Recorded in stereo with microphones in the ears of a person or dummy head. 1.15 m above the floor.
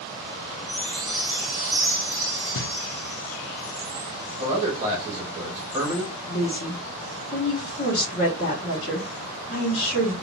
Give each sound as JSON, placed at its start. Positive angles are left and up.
{"t": 0.7, "sound": "a chime", "side_deg": -25, "distance_m": 1.2}
{"t": 2.5, "sound": "knocking", "side_deg": 60, "distance_m": 0.6}
{"t": 4.4, "sound": "a man speaking", "side_deg": -15, "distance_m": 1.4}
{"t": 6.3, "sound": "a woman speaking", "side_deg": 45, "distance_m": 1.4}